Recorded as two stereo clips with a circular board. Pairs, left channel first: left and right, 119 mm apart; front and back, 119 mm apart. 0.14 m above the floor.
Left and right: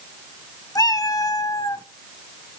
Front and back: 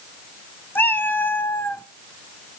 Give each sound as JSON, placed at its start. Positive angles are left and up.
{"t": 0.8, "sound": "a cat meowing", "azimuth_deg": 60, "distance_m": 0.8}